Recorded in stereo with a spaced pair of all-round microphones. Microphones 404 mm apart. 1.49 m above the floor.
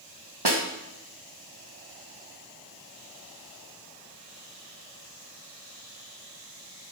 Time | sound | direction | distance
0.5 | a snare drum | 75° right (ahead or behind) | 2.0 m